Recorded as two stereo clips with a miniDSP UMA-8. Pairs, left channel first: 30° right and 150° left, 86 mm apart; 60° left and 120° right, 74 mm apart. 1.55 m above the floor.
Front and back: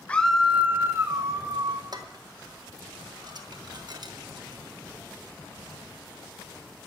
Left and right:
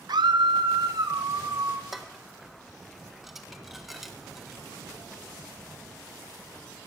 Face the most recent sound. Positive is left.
turn(degrees=155)